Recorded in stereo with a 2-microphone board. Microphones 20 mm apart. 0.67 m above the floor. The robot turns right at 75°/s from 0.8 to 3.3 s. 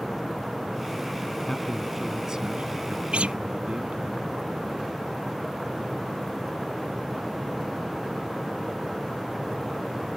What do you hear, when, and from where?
1.4 s a man speaking: 145° left; by 4.1 s 75° right
3.1 s a guitar: 85° right; by 3.4 s 80° right